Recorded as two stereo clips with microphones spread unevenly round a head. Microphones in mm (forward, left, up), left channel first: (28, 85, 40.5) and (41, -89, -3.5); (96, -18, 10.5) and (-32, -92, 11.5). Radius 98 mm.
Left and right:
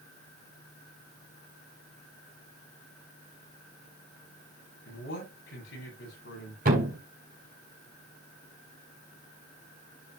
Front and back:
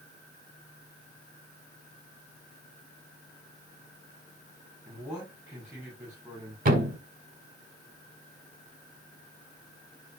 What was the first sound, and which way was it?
A man speaking, 130° left.